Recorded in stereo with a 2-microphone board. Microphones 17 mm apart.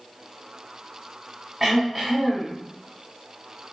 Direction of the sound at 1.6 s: 15° right (ahead or behind).